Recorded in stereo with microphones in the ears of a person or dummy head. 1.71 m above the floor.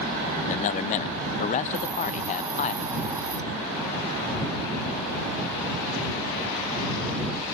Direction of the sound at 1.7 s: 15° right (ahead or behind).